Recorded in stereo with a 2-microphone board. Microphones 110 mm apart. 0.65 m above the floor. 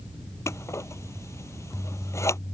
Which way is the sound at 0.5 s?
25° left (ahead or behind).